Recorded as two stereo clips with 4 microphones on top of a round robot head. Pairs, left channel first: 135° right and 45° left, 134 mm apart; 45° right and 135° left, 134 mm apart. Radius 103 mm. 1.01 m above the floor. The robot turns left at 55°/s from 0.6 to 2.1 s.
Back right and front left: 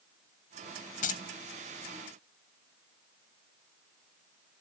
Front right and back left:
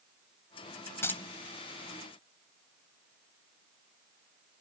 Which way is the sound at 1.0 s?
115° right.